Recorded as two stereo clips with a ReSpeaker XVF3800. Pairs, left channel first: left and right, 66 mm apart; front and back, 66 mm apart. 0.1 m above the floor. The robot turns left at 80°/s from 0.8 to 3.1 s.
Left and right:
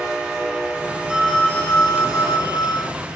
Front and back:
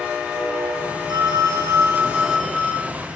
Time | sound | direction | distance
1.1 | a phone ringing | 165° right | 5.5 m